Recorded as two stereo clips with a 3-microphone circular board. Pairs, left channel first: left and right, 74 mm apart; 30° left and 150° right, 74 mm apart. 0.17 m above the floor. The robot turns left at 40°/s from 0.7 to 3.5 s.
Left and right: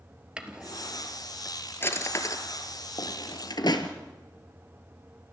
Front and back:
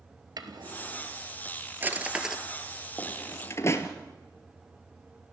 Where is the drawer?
170° right, 1.6 m; by 3.9 s 80° left, 1.6 m.